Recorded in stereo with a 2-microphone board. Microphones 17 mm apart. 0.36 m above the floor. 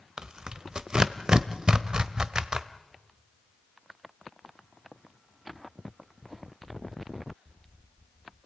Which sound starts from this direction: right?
Tearing paper, at 0.2 s.